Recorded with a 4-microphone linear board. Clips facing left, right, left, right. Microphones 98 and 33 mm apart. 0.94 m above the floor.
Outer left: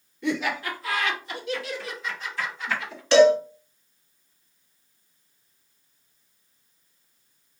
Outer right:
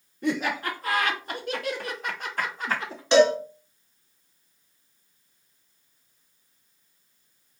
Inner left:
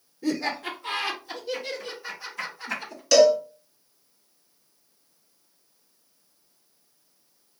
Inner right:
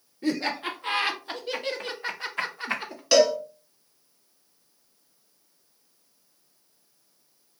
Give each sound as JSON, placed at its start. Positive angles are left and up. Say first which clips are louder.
{"t": 0.2, "sound": "laughter", "louder": "even, even", "side_deg": -45, "distance_m": 1.4}
{"t": 3.1, "sound": "a cowbell", "louder": "outer left 3 dB, inner left 3 dB", "side_deg": -25, "distance_m": 1.7}